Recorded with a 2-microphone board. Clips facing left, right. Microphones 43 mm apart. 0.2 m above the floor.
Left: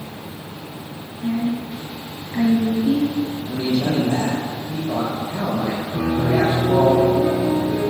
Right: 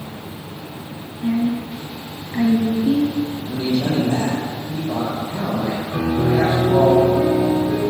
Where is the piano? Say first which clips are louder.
Right 1 dB; 70° right (ahead or behind), 8.5 m.